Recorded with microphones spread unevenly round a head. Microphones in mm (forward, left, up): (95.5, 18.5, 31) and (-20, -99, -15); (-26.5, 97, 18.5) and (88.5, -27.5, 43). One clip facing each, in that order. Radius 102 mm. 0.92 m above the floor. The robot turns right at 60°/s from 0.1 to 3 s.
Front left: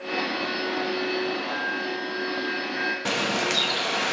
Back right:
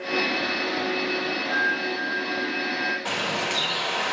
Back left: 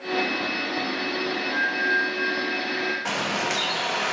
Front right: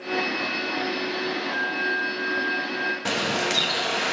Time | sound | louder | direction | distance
1.5 | a flute | back right 1 dB, back left 1 dB | 70° right | 5.5 m
3.0 | a bird | front left 6 dB, front right 2 dB | 5° left | 1.4 m